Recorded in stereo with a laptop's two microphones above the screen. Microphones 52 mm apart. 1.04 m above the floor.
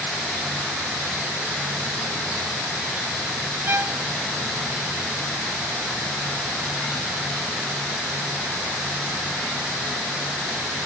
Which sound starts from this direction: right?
A violin, at 3.7 s.